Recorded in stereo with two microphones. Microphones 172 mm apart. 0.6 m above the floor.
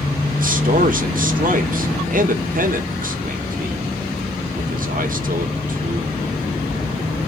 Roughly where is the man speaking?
Right.